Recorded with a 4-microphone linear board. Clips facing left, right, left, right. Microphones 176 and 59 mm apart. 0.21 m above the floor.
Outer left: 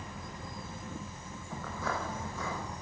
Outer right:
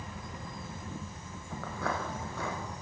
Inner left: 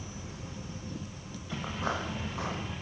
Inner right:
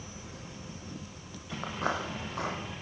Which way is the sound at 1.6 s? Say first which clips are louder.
Outer right 1 dB, inner right 2 dB; 75° right (ahead or behind).